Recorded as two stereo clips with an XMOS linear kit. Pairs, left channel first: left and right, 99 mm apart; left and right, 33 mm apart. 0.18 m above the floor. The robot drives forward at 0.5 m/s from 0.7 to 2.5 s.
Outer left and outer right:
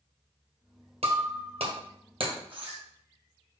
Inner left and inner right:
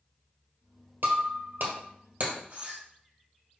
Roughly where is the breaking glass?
Right.